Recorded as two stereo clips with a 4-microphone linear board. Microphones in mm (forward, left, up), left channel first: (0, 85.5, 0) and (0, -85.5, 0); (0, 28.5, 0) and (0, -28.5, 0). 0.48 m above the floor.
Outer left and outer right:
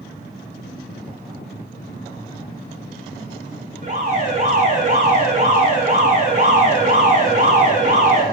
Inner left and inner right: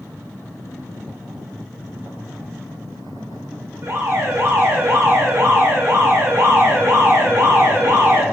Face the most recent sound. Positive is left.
turn(degrees=-45)  # may be behind; listen again after turning